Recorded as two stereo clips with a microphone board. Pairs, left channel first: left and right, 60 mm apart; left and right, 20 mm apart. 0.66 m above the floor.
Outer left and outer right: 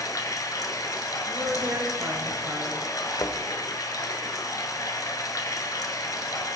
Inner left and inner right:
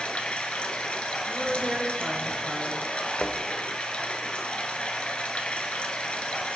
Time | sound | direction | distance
0.0 | running water | 70° left (ahead or behind) | 1.3 m
1.3 | a woman speaking | 80° right | 3 m
3.1 | a thud | 80° left | 0.9 m